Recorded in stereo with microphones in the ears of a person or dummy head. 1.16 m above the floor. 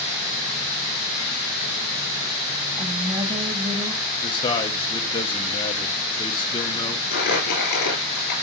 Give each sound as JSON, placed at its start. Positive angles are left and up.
{"t": 2.8, "sound": "a woman speaking", "side_deg": -35, "distance_m": 1.7}
{"t": 4.2, "sound": "a man speaking", "side_deg": 20, "distance_m": 1.1}
{"t": 7.1, "sound": "crumpling", "side_deg": 55, "distance_m": 4.0}